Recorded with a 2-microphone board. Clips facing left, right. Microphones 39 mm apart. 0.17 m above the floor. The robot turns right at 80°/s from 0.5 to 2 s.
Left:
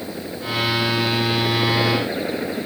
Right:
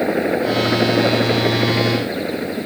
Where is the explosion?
No explosion in this recording.